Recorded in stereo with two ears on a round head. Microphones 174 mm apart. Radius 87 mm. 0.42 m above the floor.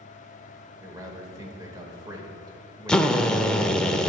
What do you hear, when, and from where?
0.8 s a man speaking: 20° right (ahead or behind), 1.6 m
2.9 s a drill: 5° left (ahead or behind), 0.6 m